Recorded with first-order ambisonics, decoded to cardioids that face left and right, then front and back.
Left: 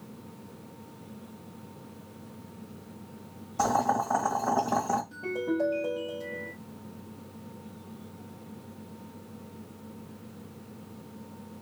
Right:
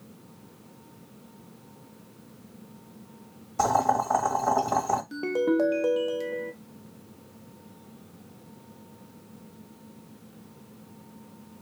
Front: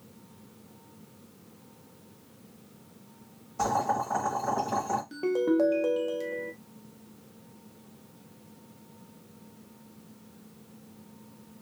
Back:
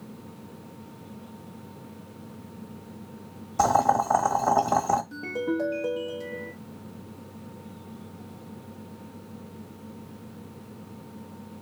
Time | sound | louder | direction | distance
3.6 | boiling | right 3 dB, back 6 dB | 150° right | 1.0 m
5.1 | a ringtone | right 6 dB, front 3 dB | 60° right | 0.6 m